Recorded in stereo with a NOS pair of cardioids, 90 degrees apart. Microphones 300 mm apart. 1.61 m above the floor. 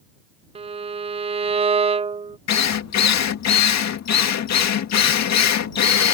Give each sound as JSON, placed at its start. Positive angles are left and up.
{"t": 0.6, "sound": "a violin", "azimuth_deg": -20}
{"t": 2.5, "sound": "a drill", "azimuth_deg": 60}